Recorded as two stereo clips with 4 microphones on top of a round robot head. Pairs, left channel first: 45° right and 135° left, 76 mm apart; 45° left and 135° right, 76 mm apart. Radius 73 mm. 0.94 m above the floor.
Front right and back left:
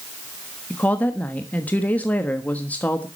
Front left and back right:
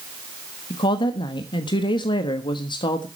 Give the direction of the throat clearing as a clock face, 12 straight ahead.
No throat clearing in this recording.